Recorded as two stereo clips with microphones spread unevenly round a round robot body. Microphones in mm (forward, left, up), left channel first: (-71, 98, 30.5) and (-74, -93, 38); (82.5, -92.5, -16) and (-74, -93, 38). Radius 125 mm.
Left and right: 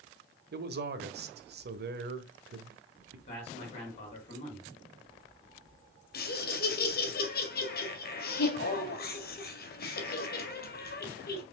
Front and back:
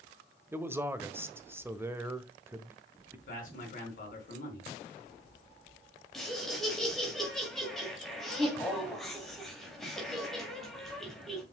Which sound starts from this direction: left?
Laughter, at 6.1 s.